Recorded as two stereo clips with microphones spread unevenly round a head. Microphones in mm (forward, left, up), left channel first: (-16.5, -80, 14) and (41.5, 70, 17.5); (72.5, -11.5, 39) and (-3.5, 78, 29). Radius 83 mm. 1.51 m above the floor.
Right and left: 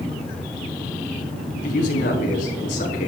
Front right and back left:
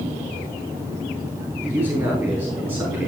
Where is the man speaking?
155° right, 3.5 m.